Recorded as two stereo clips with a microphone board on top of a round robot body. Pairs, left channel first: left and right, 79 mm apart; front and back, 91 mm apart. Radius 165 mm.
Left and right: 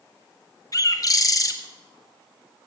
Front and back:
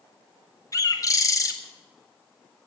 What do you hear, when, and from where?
0.7 s a bird: 50° left, 1.8 m